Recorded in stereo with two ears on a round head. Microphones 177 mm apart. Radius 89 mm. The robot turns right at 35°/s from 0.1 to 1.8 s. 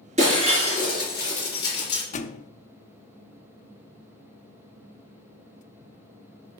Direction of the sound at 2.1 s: 35° left (ahead or behind).